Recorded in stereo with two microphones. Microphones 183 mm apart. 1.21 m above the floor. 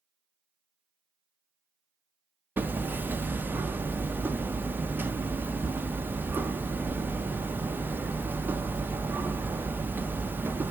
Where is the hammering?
10° right (ahead or behind), 0.6 m.